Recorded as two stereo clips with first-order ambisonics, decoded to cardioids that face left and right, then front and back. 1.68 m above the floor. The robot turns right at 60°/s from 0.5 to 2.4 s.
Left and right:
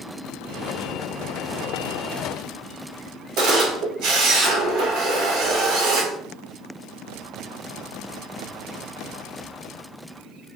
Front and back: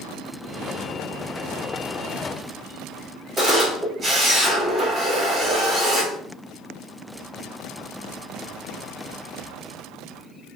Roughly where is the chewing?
No chewing in this recording.